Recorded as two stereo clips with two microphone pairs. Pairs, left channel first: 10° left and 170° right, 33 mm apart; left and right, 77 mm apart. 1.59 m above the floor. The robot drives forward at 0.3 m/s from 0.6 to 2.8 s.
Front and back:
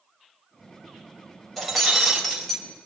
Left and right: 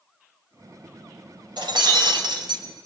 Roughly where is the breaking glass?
Right.